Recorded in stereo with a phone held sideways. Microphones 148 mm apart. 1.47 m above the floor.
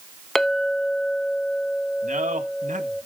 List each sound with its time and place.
0.3 s a clink: centre (ahead or behind), 1.0 m
2.0 s a man speaking: 65° right (ahead or behind), 1.8 m